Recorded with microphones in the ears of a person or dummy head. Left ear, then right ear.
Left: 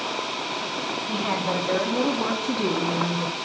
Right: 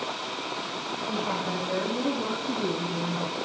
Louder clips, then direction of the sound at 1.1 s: Left 3 dB; 60° left (ahead or behind).